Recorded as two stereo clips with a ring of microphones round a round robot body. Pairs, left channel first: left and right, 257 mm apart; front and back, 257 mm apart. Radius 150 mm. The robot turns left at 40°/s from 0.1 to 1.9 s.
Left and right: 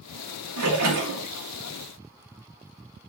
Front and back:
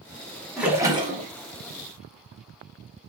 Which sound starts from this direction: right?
A splash, at 0.6 s.